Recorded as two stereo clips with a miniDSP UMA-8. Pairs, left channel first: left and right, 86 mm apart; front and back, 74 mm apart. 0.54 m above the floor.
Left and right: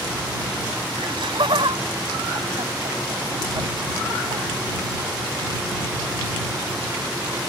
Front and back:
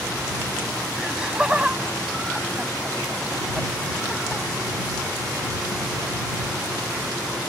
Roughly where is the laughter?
Right.